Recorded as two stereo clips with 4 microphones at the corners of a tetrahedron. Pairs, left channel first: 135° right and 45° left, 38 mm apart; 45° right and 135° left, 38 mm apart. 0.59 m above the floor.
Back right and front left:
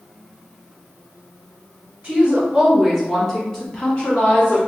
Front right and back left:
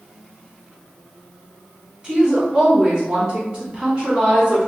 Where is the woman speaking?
75° left, 1.4 m; by 4.6 s 170° right, 1.7 m.